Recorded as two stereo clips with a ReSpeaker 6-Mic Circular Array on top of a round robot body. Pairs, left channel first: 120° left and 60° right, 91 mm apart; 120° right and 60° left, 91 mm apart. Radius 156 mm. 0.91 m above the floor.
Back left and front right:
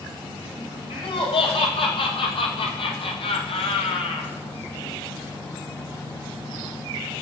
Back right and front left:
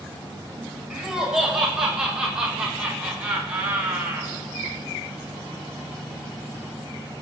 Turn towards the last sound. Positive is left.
turn(degrees=130)